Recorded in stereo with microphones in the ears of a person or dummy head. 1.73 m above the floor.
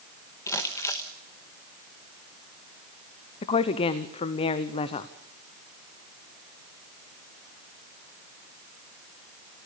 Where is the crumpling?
15° left (ahead or behind), 1.1 m.